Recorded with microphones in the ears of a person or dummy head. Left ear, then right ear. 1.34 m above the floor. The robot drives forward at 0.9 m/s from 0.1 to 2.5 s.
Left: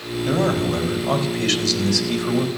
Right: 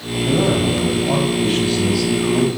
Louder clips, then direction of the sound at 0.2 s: Right 3 dB; 50° left (ahead or behind).